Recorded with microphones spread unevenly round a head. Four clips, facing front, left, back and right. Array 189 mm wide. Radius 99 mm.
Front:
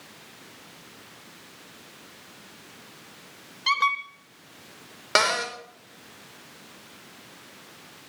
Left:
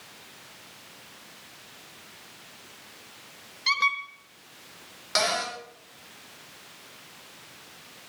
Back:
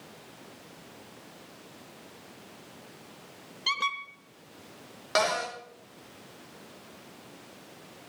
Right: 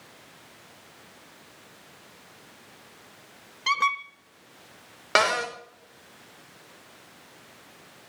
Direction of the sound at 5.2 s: 40° right.